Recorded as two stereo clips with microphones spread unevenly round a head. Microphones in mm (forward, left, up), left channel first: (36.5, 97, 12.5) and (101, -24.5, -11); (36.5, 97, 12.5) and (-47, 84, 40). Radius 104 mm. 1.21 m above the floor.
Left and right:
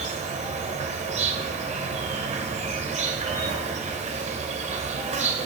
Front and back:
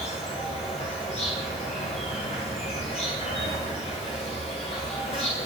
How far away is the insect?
About 1.8 m.